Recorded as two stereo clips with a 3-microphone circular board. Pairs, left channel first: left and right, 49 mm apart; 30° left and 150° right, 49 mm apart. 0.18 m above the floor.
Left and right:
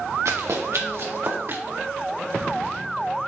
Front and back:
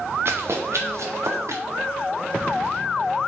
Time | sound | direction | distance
0.2 | running footsteps | 110° right | 1.4 m